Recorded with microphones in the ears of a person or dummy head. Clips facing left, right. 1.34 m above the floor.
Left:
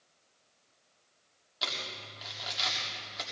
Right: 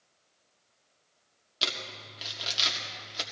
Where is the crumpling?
40° right (ahead or behind), 1.5 m.